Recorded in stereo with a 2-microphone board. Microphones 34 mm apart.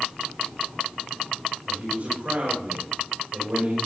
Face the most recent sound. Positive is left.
turn(degrees=-50)  # may be behind; listen again after turning